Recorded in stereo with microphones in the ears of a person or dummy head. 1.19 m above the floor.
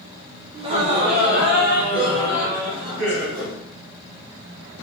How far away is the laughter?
About 1.0 m.